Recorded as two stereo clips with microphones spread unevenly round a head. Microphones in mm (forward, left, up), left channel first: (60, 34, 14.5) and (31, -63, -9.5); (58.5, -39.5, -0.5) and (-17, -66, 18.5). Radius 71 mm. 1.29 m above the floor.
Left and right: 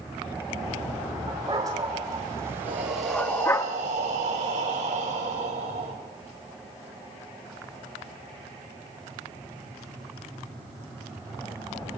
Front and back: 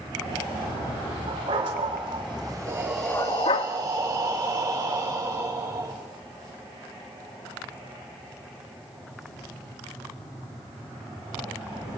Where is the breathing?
120° right, 6 m.